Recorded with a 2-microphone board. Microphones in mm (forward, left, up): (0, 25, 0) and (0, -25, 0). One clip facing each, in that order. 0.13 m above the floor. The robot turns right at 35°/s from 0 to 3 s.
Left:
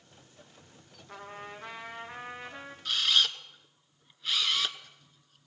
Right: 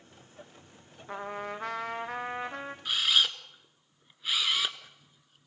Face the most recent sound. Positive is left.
turn(degrees=-10)  # may be behind; listen again after turning